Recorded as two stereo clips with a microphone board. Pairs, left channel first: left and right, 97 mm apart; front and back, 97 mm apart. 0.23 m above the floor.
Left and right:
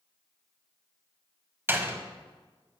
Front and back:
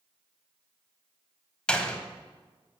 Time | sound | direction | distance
1.7 | a door slam | 65° right | 1.1 m